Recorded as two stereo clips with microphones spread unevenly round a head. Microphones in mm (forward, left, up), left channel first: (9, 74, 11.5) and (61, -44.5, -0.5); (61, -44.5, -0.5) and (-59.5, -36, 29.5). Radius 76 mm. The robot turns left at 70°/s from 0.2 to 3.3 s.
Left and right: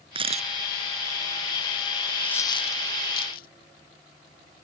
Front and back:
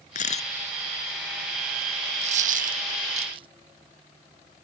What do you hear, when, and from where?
0.1 s a camera shutter: 20° right; by 0.5 s 40° right
2.2 s a dropped coin: 160° right; by 3.5 s 120° left